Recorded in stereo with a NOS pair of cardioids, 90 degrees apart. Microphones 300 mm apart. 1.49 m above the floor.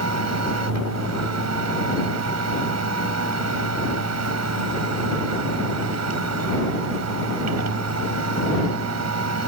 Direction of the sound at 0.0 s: 55° right.